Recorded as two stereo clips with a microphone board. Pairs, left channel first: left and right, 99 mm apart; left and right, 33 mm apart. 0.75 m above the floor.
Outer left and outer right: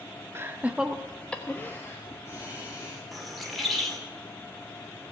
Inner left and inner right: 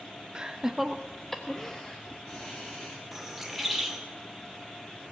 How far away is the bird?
About 2 m.